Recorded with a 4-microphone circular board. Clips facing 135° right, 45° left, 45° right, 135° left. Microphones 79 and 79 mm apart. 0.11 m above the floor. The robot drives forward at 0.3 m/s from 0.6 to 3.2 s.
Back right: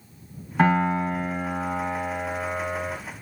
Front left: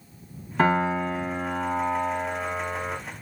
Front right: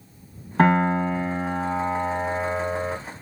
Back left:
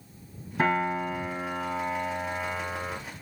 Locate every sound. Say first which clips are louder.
0.6 s a piano: back right 1 dB, front right 7 dB; 45° right, 2.5 m; by 3.0 s 60° right, 1.9 m